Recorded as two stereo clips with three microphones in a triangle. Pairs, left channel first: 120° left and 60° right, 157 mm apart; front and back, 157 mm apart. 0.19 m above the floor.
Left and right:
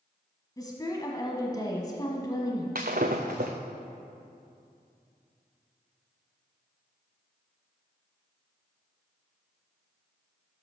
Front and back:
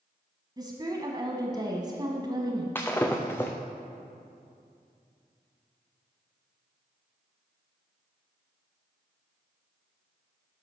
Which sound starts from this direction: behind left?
A woman speaking, at 0.6 s.